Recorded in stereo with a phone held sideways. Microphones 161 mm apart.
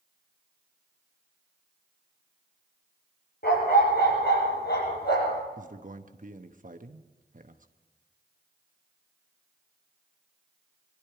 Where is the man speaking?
55° right (ahead or behind), 1.1 m.